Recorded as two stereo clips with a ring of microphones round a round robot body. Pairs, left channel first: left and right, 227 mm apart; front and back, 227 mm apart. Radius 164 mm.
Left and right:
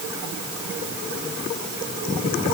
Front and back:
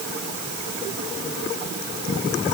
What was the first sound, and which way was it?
Only background noise.